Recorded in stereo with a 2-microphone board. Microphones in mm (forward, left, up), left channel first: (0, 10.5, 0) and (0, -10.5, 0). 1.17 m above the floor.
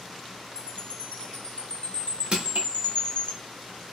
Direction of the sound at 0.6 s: 55° left (ahead or behind).